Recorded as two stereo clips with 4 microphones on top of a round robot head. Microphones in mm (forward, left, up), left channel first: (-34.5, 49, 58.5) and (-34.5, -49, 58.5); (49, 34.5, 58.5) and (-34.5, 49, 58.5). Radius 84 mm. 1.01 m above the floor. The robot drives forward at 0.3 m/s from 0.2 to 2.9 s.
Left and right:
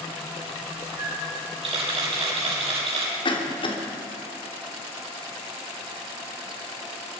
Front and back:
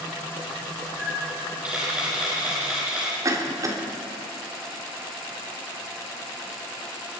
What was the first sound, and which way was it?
A camera shutter, 110° right.